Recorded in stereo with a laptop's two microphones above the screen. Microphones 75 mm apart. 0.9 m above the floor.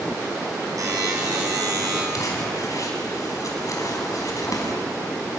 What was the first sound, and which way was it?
A buzzer, 55° right (ahead or behind).